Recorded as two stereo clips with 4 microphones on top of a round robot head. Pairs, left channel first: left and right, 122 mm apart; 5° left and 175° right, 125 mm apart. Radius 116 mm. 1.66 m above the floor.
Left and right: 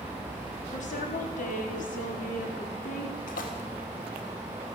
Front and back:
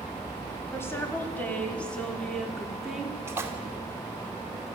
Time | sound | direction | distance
0.7 | a woman speaking | 75° left | 4.5 m
3.3 | a splash | 115° left | 2.5 m